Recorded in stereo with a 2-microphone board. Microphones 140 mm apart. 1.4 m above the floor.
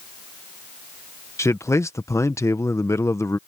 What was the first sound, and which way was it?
A man speaking, 20° left (ahead or behind).